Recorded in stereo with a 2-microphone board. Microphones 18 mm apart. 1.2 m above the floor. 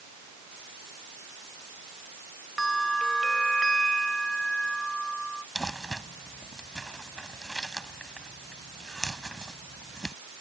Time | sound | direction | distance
2.6 | a bell | 15° left (ahead or behind) | ?
5.5 | crumpling | 30° left (ahead or behind) | ?